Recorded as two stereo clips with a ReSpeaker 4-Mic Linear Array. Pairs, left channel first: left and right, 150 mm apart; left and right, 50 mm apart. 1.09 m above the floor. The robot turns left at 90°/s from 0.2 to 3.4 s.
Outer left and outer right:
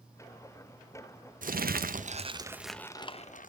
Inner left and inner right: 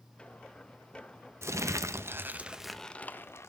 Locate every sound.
1.4 s crumpling: 65° right, 0.5 m; by 3.5 s 115° left, 0.5 m